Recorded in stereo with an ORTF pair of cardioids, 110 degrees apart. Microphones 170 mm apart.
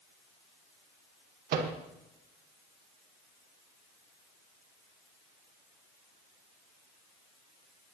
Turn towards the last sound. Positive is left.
turn(degrees=-65)